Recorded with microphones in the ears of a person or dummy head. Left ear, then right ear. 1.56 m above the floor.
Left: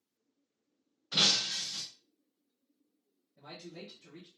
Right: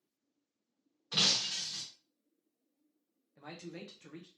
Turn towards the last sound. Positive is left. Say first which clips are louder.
# even
turn(degrees=-50)  # may be behind; listen again after turning